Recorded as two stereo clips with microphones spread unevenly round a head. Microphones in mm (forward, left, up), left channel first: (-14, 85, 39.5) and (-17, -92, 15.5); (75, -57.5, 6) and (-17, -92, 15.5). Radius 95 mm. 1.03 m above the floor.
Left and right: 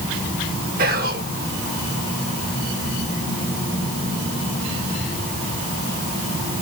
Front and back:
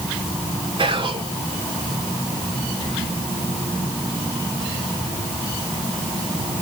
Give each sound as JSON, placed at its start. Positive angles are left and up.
{"t": 0.8, "sound": "whispering", "azimuth_deg": -125, "distance_m": 3.5}